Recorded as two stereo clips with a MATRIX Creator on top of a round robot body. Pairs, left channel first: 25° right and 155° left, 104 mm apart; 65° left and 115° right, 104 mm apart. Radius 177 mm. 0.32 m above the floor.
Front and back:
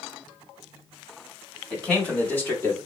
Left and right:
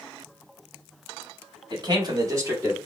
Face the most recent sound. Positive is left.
turn(degrees=-60)